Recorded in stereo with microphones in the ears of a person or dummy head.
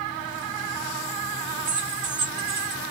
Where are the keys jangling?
45° right (ahead or behind), 1.9 m.